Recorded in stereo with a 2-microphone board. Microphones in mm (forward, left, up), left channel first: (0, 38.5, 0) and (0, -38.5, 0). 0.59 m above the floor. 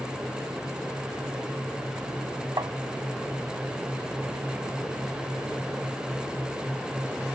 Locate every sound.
2.6 s tapping: 60° right (ahead or behind)